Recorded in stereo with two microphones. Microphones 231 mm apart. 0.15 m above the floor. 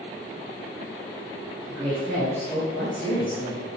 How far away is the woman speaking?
About 3.5 m.